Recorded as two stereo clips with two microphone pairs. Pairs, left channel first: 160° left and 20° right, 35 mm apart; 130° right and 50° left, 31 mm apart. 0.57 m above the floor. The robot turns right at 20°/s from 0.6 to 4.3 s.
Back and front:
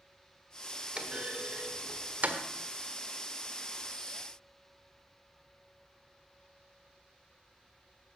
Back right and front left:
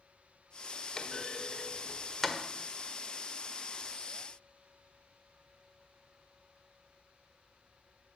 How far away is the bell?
I don't hear a bell.